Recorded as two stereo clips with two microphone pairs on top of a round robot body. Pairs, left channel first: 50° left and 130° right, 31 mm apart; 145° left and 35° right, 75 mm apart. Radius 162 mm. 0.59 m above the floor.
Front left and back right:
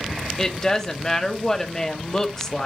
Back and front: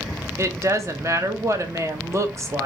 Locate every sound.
0.4 s a woman speaking: 15° right, 1.1 m